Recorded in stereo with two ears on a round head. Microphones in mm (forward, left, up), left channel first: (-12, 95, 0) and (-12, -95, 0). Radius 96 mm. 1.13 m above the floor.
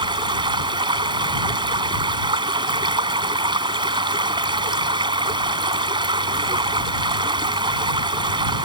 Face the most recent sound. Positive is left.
turn(degrees=-20)  # may be behind; listen again after turning